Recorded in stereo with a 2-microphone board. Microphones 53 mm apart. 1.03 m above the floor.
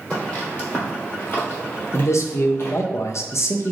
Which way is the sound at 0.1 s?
25° left (ahead or behind).